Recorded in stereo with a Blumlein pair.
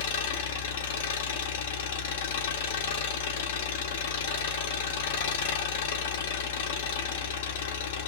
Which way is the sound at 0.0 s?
55° left.